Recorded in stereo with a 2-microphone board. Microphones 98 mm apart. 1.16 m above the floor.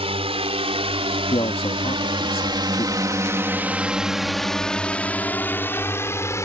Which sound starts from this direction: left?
A man speaking, at 1.3 s.